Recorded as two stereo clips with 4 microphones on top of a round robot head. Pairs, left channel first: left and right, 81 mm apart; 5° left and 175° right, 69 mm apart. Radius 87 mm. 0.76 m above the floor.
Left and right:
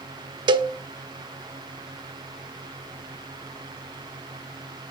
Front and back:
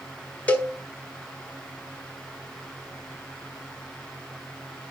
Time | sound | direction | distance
0.5 | a cowbell | 65° right | 0.6 m